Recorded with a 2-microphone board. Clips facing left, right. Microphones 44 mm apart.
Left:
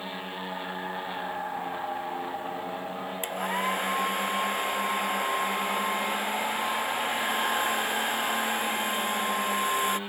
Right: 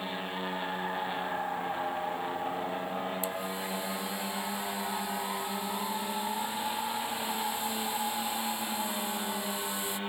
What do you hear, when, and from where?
3.2 s a hair dryer: 55° left (ahead or behind)